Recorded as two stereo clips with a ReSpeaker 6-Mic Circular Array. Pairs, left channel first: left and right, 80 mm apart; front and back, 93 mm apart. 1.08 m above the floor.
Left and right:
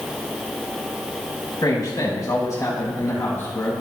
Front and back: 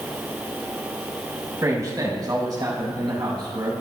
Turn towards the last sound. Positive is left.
turn(degrees=150)